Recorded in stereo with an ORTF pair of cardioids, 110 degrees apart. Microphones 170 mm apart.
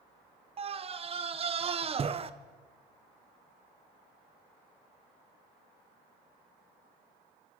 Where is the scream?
35° right, 1.6 m.